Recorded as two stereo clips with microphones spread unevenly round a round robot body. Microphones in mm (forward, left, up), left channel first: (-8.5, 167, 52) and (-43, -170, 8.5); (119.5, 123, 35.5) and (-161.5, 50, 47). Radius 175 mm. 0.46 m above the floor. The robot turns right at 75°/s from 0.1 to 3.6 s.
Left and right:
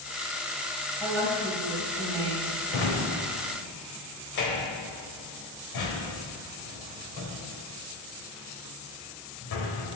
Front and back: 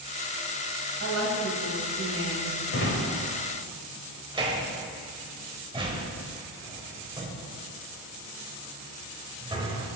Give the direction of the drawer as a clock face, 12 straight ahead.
10 o'clock.